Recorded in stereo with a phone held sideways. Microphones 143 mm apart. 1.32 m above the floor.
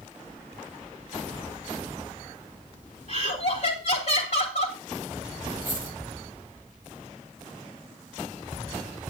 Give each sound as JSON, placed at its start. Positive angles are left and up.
{"t": 3.1, "sound": "laughter", "side_deg": 50, "distance_m": 3.0}
{"t": 5.6, "sound": "a dropped coin", "side_deg": 80, "distance_m": 6.0}